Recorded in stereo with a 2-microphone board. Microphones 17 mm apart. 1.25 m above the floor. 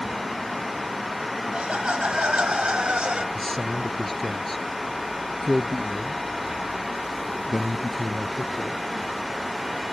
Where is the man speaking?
20° left (ahead or behind).